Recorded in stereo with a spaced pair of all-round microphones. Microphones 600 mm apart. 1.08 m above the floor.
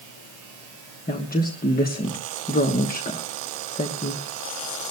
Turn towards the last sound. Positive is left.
turn(degrees=15)  # may be behind; listen again after turning